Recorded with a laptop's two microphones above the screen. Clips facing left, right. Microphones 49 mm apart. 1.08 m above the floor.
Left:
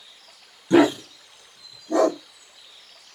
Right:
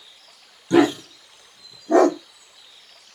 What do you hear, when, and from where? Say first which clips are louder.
0.7 s a dog barking: even; 15° left (ahead or behind), 0.9 m; by 2.2 s 55° right (ahead or behind), 1.2 m